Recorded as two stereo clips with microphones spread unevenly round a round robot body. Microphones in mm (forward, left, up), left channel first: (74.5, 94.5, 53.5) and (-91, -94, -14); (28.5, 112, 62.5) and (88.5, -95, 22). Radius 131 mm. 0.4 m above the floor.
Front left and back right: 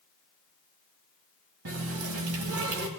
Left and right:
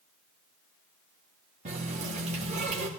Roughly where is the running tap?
Behind right.